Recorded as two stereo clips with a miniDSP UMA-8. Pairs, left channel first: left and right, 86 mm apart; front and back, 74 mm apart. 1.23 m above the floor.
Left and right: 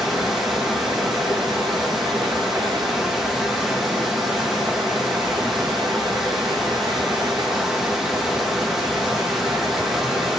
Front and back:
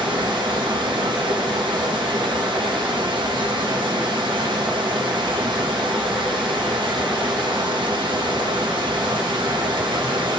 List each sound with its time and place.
0.0 s running water: 175° right, 1.0 m